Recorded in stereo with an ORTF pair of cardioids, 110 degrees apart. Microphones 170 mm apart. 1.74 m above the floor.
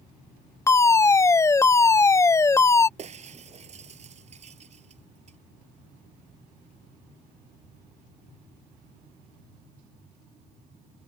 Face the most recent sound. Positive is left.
turn(degrees=-40)